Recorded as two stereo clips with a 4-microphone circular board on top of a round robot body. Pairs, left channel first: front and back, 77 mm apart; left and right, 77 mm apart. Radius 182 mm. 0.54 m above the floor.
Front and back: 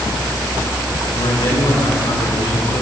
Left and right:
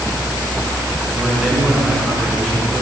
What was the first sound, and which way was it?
A man speaking, 5° right.